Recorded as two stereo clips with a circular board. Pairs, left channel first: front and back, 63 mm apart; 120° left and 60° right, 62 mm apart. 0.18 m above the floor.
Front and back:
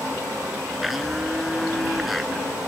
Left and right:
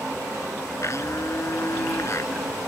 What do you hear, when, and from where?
0.8 s a blender: 90° left